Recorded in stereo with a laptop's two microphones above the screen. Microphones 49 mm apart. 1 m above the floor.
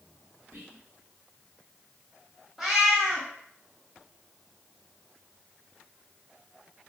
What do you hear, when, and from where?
0.5 s whispering: 80° right, 1.0 m
2.6 s a cat meowing: 10° right (ahead or behind), 0.7 m